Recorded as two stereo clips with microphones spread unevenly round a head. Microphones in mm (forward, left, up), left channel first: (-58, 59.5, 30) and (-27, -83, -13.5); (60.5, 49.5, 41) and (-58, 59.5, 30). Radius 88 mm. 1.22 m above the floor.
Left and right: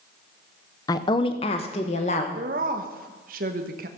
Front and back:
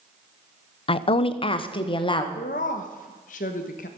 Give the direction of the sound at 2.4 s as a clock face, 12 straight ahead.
1 o'clock.